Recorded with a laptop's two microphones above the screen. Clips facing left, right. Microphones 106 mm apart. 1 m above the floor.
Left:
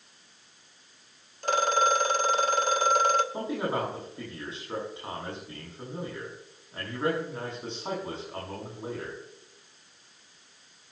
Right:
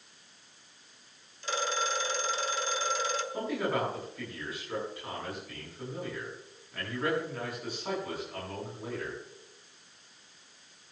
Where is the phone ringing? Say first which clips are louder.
Left 8 dB; 55° left (ahead or behind), 1.1 m.